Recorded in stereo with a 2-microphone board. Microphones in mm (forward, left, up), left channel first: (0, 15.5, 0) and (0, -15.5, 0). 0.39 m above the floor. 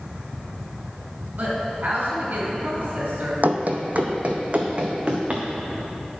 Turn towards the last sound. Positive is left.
turn(degrees=-35)  # may be behind; listen again after turning